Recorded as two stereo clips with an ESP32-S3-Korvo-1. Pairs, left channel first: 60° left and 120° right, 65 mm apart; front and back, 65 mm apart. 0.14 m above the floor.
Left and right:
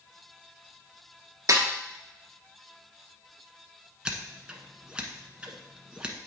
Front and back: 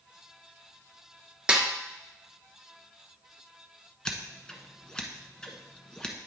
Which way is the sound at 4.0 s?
65° right.